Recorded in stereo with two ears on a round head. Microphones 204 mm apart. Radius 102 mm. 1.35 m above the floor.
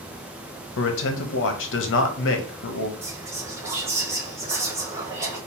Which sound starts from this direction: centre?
Whispering, at 3.0 s.